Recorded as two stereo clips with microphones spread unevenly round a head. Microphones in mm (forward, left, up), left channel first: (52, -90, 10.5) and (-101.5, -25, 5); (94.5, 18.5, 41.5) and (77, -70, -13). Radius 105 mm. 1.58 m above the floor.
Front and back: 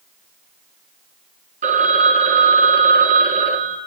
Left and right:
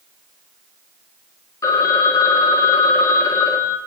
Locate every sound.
1.6 s a phone ringing: 105° left, 0.9 m